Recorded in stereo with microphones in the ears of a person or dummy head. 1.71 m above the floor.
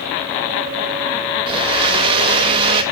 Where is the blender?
30° right (ahead or behind), 2 m.